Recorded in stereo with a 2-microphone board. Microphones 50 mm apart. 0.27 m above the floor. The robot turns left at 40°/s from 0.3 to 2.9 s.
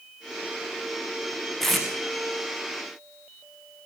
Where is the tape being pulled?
5° left (ahead or behind), 5 m; by 1.9 s 5° right (ahead or behind), 5 m.